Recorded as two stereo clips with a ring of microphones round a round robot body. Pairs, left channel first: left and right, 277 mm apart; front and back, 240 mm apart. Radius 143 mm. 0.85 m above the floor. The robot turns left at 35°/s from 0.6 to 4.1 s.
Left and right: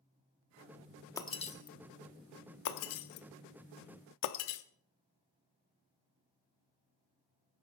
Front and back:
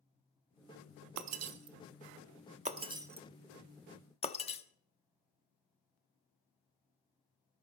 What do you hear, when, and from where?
1.2 s breaking glass: 170° left, 1.0 m; by 4.6 s 65° left, 1.0 m